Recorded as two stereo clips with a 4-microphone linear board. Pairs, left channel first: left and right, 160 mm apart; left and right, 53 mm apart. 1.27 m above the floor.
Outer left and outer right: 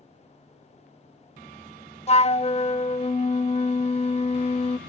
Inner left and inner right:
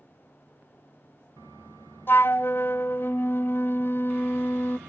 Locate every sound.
2.1 s a flute: 40° left (ahead or behind), 0.5 m